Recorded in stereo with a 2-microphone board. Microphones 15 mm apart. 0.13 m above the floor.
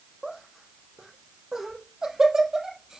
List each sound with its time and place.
0.2 s laughter: 35° right (ahead or behind), 4.5 m; by 3.0 s 55° right (ahead or behind), 4 m